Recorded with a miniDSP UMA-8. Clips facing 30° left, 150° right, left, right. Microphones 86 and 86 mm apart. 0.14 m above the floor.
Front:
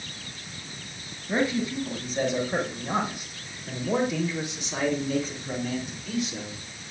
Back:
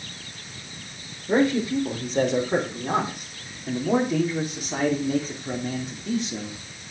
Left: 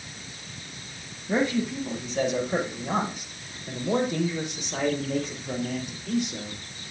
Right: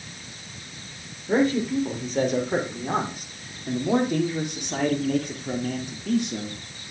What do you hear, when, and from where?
1.3 s a man speaking: 130° right, 4.5 m; by 6.7 s 90° right, 3.5 m